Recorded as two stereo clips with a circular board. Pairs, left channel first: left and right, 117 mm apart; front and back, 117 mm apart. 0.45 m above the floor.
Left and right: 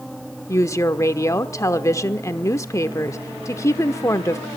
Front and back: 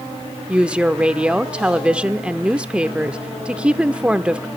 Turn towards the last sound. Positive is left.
turn(degrees=110)